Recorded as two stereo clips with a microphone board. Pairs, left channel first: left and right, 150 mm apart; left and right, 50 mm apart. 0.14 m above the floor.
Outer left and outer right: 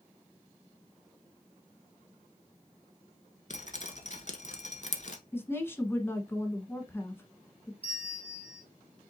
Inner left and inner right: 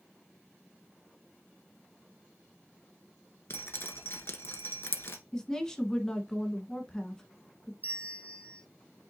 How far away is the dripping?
About 0.9 m.